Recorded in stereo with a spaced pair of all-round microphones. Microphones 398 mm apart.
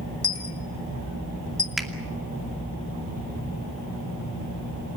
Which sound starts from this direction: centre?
A finger snap, at 1.8 s.